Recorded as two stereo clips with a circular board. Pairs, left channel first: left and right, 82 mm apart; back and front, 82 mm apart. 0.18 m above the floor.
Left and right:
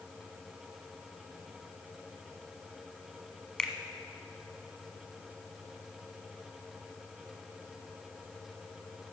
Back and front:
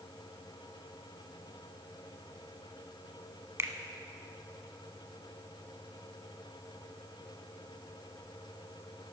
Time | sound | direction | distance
3.6 | a finger snap | 15° left | 1.0 m